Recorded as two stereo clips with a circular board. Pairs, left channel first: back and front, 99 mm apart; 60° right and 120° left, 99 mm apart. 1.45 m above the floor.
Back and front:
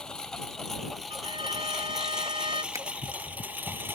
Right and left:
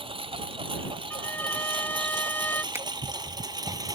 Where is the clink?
No clink in this recording.